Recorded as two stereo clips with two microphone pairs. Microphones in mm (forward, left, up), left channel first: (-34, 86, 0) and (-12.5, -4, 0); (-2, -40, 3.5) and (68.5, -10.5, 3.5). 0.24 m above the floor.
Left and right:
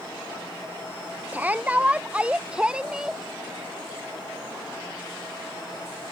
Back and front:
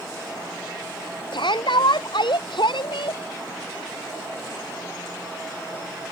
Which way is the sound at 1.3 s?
150° right.